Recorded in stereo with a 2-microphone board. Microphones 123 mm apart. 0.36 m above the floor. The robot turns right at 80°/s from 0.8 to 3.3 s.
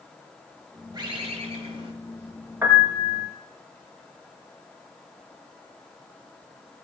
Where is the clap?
I don't hear a clap.